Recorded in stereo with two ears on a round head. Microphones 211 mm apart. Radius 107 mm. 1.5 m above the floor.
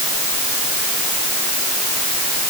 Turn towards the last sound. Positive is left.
No sound to turn to.